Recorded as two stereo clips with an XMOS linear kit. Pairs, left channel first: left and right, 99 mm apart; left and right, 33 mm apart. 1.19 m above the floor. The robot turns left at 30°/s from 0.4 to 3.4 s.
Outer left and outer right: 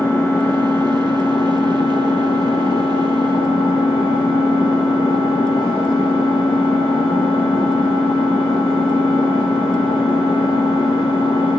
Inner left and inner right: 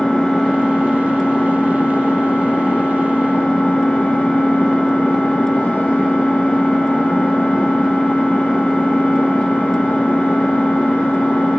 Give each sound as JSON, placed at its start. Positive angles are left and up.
{"t": 0.0, "sound": "an engine running", "azimuth_deg": 155, "distance_m": 4.5}